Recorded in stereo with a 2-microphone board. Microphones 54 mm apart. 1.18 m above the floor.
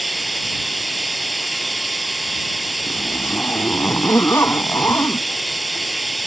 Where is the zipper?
45° left (ahead or behind).